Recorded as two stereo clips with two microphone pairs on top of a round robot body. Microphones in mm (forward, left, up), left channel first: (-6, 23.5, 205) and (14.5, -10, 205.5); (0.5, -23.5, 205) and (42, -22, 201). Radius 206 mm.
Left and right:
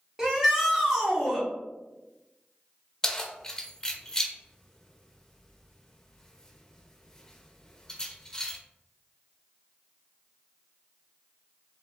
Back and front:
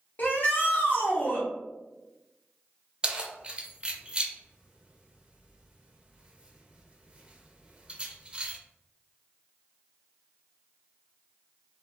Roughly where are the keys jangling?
Ahead left.